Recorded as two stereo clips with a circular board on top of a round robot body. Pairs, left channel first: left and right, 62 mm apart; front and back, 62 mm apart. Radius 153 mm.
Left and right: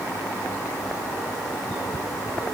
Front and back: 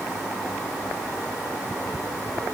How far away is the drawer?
I don't hear a drawer.